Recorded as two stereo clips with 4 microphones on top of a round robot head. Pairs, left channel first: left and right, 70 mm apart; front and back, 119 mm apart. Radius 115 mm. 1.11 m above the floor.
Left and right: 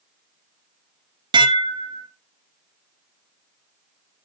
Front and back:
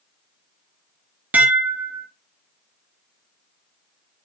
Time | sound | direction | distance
1.3 | dishes clattering | 100° right | 1.0 m